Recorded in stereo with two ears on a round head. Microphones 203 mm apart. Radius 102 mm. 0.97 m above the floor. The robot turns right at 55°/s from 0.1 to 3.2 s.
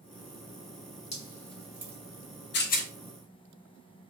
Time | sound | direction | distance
1.1 | dripping | 30° left (ahead or behind) | 1.2 m
2.5 | a rattle | 50° left (ahead or behind) | 0.7 m